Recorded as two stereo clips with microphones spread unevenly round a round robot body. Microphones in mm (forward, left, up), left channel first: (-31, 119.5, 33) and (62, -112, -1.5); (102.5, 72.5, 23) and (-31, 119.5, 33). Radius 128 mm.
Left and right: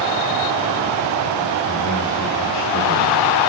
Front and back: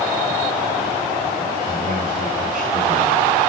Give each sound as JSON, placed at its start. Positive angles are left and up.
{"t": 1.6, "sound": "a man speaking", "azimuth_deg": 130, "distance_m": 4.5}